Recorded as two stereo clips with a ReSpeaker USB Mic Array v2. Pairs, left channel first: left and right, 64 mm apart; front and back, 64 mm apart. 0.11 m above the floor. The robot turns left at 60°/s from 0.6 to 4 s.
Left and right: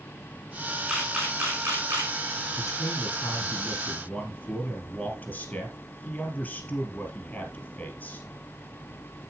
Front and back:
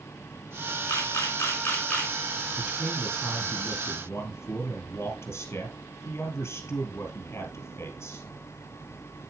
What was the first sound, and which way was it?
A camera shutter, 5° right.